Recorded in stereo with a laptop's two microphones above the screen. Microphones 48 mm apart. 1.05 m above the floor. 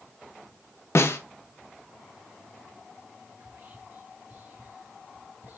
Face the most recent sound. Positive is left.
turn(degrees=-45)  # may be behind; listen again after turning